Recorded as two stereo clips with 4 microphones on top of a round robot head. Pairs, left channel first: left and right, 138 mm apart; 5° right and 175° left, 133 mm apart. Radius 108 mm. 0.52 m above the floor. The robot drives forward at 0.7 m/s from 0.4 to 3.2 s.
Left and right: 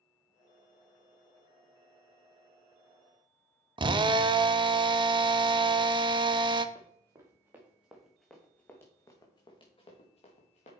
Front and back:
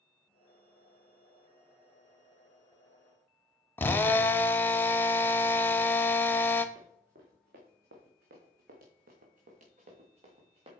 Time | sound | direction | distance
3.8 | a drill | 75° right | 0.7 m
6.8 | running footsteps | 150° right | 3 m